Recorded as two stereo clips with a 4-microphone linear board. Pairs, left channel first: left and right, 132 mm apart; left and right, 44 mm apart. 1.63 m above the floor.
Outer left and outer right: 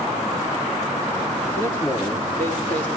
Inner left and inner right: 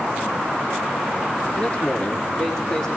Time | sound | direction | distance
1.6 | a man speaking | 40° left (ahead or behind) | 3.5 m